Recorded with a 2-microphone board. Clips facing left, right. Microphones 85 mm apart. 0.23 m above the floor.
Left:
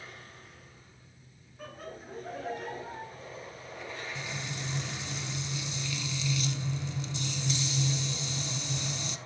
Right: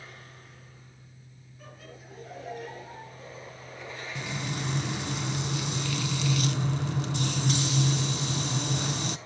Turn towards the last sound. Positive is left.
turn(degrees=-60)  # may be behind; listen again after turning